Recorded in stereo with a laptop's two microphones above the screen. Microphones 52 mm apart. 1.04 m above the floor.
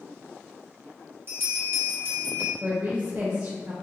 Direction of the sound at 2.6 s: 60° right (ahead or behind).